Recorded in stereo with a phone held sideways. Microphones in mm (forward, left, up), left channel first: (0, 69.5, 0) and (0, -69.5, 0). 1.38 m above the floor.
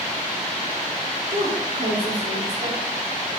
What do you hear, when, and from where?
1.3 s a woman speaking: 75° right (ahead or behind), 4 m